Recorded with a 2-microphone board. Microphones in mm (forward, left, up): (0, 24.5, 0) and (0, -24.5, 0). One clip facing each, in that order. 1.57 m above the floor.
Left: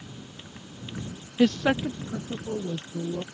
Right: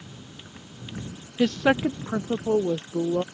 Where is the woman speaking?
10° left (ahead or behind); by 3.2 s 85° right.